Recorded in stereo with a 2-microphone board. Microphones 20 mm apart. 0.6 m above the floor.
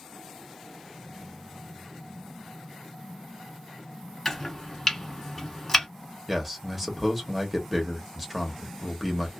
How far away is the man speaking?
About 0.9 m.